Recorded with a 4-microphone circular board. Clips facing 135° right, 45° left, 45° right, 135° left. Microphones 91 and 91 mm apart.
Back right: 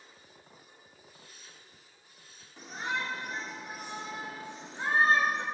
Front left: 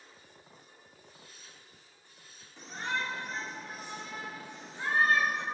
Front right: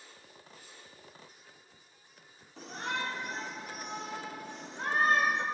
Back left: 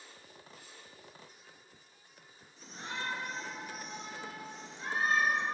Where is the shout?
55° right, 4 m; by 5.5 s 75° right, 3 m.